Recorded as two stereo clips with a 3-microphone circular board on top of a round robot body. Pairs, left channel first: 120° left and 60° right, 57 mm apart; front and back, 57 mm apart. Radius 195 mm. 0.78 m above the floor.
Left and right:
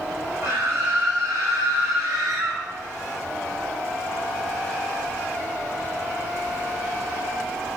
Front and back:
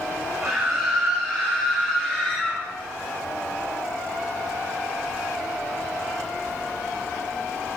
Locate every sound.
0.4 s a scream: 115° right, 3 m; by 2.6 s 75° right, 2.5 m